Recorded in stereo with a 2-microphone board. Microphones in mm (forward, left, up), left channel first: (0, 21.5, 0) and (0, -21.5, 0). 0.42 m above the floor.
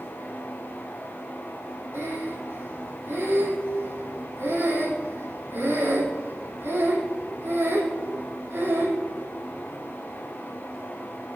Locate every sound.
1.9 s breathing: 80° right, 4 m